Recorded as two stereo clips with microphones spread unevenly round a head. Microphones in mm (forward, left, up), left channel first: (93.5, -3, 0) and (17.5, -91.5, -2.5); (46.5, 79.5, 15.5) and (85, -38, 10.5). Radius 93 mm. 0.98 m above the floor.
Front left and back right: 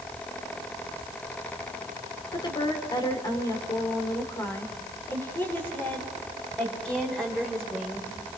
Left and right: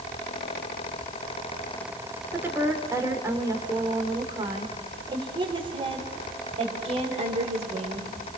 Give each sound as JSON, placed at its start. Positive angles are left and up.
{"t": 2.3, "sound": "a woman speaking", "azimuth_deg": 0, "distance_m": 3.5}